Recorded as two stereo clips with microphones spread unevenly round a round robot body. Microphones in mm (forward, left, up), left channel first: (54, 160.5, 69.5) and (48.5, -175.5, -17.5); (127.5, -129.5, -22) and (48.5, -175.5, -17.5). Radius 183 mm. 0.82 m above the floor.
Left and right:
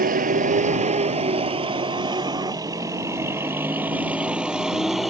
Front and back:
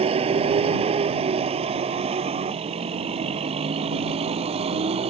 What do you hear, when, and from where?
0.0 s a vehicle: 160° right; by 5.1 s straight behind